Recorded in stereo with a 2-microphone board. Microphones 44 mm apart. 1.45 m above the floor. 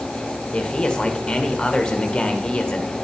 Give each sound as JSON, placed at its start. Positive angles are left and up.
{"t": 0.5, "sound": "a man speaking", "side_deg": 20, "distance_m": 1.2}